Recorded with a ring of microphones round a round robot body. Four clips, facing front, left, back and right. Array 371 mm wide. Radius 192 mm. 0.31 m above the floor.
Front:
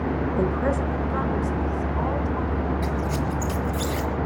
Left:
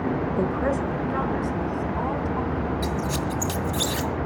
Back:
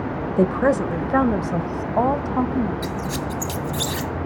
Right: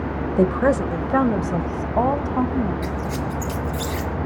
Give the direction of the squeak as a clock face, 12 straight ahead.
7 o'clock.